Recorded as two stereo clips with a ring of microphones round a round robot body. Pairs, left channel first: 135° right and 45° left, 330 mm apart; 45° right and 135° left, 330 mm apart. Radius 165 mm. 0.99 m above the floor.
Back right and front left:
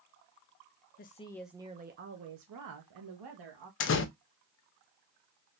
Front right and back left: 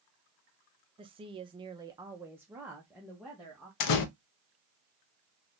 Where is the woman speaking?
165° right, 0.5 m; by 3.7 s 45° left, 1.3 m.